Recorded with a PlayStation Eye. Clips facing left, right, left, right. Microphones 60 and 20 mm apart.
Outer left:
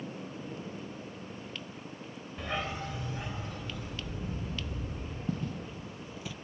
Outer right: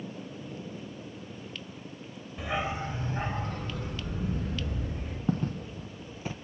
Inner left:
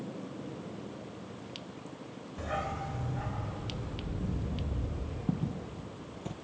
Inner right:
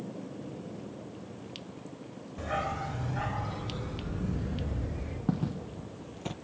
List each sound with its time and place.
2.4 s a dog barking: centre (ahead or behind), 1.2 m; by 5.2 s 65° right (ahead or behind), 5 m
5.3 s footsteps: 45° right (ahead or behind), 1.4 m; by 6.3 s 40° right (ahead or behind), 1.0 m